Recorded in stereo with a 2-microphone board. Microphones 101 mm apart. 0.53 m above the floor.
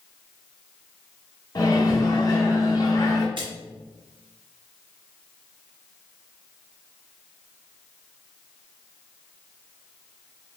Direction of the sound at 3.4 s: 60° right (ahead or behind).